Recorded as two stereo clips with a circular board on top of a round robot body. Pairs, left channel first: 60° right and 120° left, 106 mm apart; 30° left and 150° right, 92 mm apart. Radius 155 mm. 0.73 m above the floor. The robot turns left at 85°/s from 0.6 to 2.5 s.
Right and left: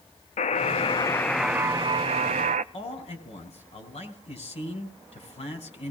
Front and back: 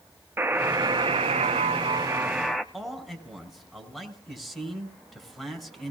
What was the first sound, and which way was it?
A buzzer, 80° right.